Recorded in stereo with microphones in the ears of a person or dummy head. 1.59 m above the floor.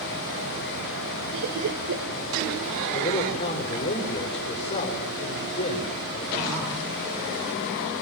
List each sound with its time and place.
1.3 s laughter: 75° right (ahead or behind), 2 m
2.9 s a man speaking: 35° left (ahead or behind), 6 m